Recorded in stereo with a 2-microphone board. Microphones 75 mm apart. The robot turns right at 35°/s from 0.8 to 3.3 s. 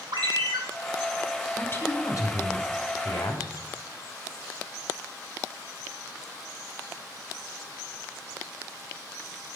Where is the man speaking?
30° left, 1.8 m; by 3.7 s 95° left, 1.8 m.